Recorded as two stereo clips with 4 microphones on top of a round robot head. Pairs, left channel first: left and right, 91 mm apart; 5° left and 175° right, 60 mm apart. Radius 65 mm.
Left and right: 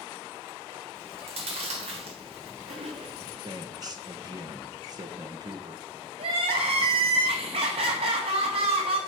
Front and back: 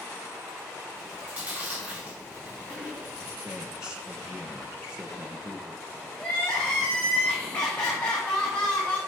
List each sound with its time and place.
0.9 s chewing: 105° right, 1.7 m
3.4 s a man speaking: 105° right, 1.0 m
6.2 s crying: 75° right, 1.4 m